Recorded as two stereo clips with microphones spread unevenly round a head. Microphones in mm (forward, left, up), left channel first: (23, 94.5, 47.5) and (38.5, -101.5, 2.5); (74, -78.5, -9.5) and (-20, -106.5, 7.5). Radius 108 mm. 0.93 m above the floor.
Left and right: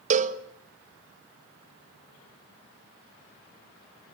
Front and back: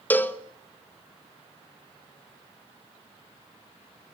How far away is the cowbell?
About 1.3 m.